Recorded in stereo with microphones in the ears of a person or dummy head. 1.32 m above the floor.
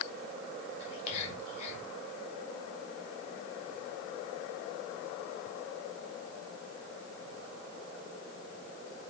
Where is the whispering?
40° left (ahead or behind), 2.5 m.